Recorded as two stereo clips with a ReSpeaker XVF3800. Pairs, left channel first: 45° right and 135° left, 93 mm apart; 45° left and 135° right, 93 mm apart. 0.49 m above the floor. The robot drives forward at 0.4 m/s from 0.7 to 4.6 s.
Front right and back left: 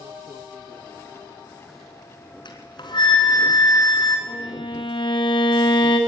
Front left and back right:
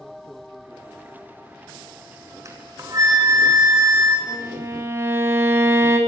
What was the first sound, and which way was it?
A flute, 80° right.